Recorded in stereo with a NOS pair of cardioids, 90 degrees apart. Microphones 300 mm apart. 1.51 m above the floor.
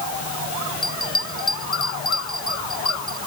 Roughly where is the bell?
Ahead.